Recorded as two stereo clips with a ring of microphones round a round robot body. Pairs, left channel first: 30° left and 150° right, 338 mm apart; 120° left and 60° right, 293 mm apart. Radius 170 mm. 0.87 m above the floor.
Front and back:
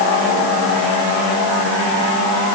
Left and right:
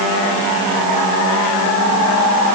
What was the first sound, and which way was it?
Only background noise.